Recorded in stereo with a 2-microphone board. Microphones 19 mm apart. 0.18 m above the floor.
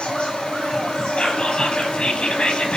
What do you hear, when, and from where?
0.0 s an insect: 70° left (ahead or behind), 7 m
1.2 s whispering: 60° left (ahead or behind), 4 m